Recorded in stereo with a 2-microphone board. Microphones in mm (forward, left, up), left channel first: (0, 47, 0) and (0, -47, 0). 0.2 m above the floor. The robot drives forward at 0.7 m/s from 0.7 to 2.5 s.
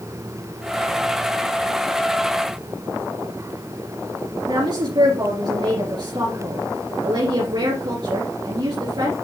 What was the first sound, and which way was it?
A woman speaking, 50° right (ahead or behind).